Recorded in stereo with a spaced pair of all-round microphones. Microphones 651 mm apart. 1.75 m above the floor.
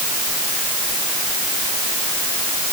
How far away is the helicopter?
I don't hear a helicopter.